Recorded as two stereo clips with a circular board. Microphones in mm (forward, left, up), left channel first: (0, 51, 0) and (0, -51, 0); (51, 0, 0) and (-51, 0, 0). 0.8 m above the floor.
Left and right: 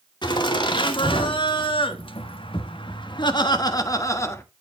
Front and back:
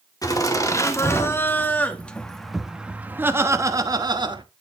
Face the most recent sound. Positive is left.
turn(degrees=150)